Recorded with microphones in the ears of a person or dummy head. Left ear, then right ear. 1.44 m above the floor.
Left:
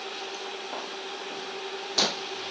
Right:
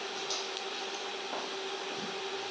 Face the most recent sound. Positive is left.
No sound to turn to.